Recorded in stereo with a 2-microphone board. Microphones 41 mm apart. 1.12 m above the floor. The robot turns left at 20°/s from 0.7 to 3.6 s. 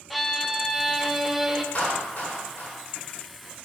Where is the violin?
Centre (ahead or behind), 0.5 m; by 1.6 s 10° right (ahead or behind), 0.5 m.